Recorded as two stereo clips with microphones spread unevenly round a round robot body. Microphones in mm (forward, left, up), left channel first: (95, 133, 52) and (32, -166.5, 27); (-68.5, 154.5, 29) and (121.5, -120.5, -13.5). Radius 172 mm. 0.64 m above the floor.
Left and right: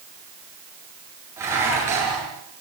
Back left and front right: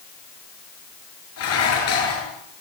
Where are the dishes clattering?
175° left, 7 m.